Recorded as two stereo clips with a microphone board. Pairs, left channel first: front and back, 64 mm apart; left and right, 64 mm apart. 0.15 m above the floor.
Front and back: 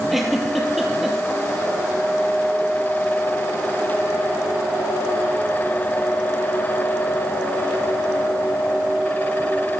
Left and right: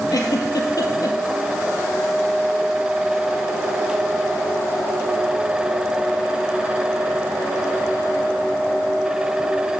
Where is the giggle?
95° left, 1.7 m.